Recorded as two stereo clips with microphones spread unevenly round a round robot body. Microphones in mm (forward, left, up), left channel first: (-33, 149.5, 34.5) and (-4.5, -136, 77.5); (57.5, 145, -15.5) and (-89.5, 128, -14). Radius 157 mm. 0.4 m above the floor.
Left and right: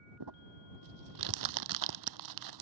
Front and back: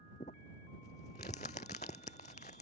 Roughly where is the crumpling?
Ahead right.